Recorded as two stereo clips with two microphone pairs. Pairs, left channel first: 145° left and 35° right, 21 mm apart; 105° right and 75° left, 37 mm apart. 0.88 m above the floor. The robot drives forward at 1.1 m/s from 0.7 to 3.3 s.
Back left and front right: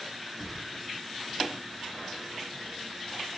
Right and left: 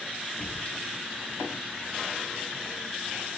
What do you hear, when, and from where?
0.4 s a whoosh: 125° right, 9.5 m